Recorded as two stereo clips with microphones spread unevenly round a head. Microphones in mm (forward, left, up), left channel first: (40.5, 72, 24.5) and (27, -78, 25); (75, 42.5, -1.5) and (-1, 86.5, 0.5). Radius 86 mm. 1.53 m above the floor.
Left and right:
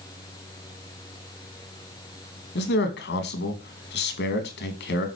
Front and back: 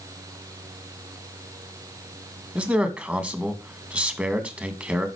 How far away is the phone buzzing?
No phone buzzing in this recording.